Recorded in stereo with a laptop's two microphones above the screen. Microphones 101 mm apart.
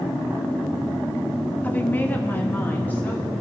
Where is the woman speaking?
15° left (ahead or behind), 0.6 m; by 3.3 s 20° left (ahead or behind), 1.6 m.